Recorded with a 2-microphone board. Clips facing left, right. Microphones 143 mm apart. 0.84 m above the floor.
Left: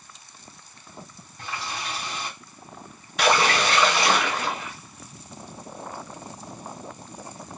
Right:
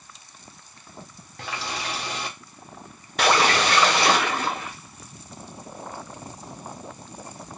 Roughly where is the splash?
Right.